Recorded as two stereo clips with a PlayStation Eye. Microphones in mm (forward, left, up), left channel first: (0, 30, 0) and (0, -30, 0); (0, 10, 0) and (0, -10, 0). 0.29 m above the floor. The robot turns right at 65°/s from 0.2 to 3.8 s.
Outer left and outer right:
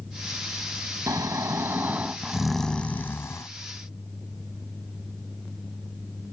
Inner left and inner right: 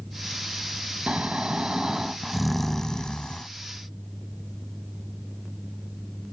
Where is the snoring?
90° right; by 3.5 s 65° left.